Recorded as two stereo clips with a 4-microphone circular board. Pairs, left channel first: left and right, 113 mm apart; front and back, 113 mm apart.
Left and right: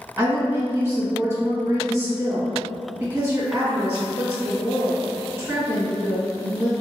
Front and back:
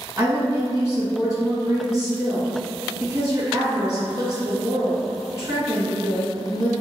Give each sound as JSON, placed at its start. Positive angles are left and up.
{"t": 0.2, "sound": "a woman speaking", "azimuth_deg": -120, "distance_m": 1.1}